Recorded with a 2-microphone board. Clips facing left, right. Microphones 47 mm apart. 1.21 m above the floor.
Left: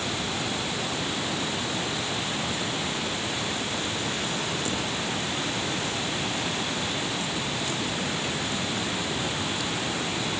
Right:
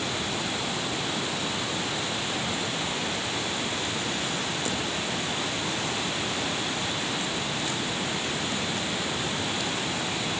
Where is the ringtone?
No ringtone in this recording.